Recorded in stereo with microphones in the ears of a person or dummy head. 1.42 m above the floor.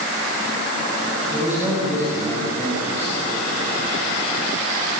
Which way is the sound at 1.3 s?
10° right (ahead or behind).